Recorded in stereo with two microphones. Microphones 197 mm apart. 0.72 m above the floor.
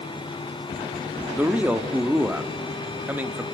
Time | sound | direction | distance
1.4 | a man speaking | 10° right (ahead or behind) | 1.4 m